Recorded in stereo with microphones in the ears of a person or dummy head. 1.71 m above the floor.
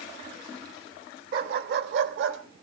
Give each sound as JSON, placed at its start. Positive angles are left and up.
{"t": 1.3, "sound": "a dog barking", "side_deg": -60, "distance_m": 2.0}